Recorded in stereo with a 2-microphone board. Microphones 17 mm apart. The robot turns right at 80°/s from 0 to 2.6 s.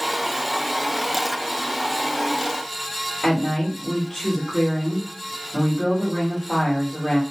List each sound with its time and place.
3.2 s a woman speaking: 60° left (ahead or behind), 1.2 m